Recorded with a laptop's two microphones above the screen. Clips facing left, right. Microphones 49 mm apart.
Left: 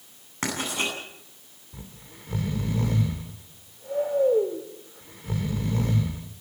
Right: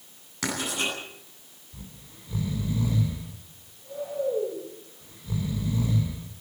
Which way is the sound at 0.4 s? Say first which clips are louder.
Left 1 dB; 30° left (ahead or behind).